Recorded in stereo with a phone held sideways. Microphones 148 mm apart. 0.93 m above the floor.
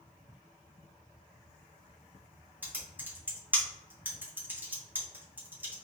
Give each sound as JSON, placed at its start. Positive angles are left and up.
{"t": 2.6, "sound": "typing on a keyboard", "side_deg": -15, "distance_m": 1.0}